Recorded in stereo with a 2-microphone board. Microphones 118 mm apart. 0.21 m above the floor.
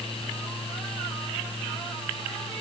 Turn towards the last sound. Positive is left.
No sound to turn to.